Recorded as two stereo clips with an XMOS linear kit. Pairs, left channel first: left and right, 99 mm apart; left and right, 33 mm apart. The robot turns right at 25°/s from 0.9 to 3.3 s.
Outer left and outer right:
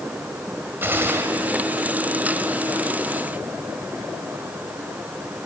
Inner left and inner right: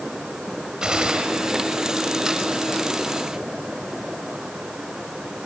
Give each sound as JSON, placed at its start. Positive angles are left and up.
{"t": 0.8, "sound": "a gunshot", "side_deg": -20, "distance_m": 1.6}